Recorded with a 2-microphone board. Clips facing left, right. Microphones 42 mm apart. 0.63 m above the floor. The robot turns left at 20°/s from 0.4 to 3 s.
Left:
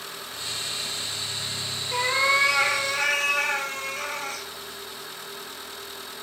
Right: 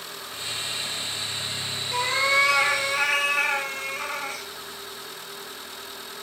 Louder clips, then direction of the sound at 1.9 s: Even; 10° left (ahead or behind).